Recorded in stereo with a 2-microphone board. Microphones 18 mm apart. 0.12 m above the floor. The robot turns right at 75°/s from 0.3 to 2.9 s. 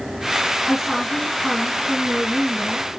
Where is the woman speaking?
10° right (ahead or behind), 1.5 m; by 2.9 s 5° left (ahead or behind), 1.5 m.